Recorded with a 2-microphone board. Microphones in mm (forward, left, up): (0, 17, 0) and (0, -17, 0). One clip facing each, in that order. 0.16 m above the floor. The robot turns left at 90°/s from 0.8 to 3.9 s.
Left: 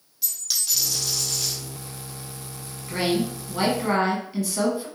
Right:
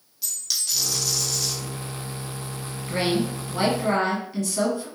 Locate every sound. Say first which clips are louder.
0.2 s a dropped coin: even; 175° left, 1.9 m; by 1.6 s 110° left, 1.9 m
2.9 s a woman speaking: even; 15° right (ahead or behind), 1.2 m; by 4.9 s 10° left (ahead or behind), 1.2 m